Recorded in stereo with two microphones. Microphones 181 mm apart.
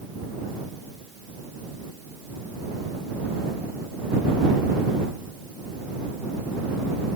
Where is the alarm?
I don't hear an alarm.